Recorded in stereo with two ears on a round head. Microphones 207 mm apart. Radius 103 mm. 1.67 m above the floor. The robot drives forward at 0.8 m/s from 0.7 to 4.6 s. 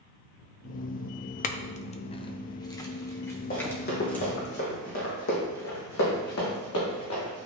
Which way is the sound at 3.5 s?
40° left (ahead or behind).